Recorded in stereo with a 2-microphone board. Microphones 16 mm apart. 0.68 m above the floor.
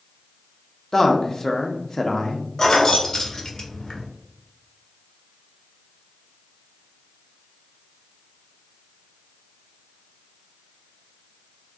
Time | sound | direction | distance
0.9 | a man speaking | 30° left (ahead or behind) | 0.6 m
2.6 | keys jangling | 40° left (ahead or behind) | 0.6 m